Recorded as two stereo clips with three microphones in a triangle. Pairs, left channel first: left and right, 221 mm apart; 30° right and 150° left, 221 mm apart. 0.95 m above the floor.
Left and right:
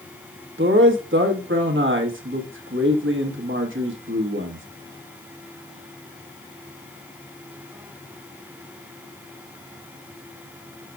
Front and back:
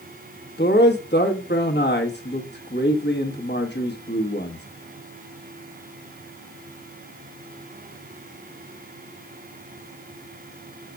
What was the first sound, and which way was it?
A man speaking, 65° right.